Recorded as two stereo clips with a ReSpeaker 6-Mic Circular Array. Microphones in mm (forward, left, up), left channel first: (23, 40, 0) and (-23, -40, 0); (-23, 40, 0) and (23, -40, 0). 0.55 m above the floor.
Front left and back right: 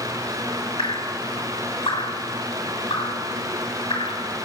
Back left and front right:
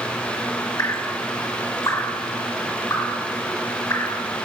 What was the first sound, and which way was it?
Dripping, 65° left.